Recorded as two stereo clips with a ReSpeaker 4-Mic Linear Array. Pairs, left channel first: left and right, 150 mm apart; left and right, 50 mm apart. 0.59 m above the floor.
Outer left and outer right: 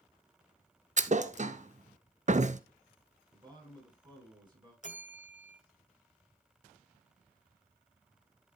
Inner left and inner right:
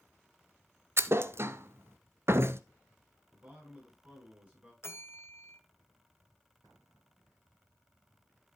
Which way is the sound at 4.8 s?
50° left (ahead or behind).